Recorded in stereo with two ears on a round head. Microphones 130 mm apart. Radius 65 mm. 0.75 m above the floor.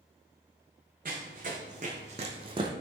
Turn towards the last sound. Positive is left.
turn(degrees=-30)  # may be behind; listen again after turning